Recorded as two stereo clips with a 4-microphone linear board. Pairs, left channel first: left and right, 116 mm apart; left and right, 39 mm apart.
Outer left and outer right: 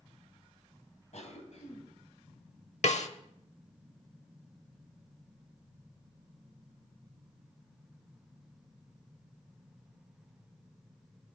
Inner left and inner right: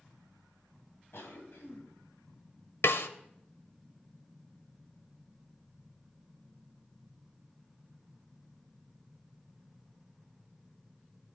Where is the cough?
75° left (ahead or behind), 3 m.